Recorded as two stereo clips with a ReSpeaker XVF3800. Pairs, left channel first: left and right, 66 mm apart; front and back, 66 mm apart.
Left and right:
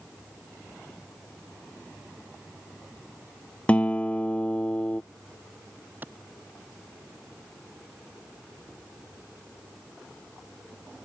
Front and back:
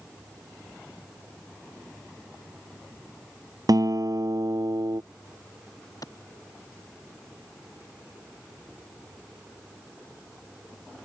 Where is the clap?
30° right.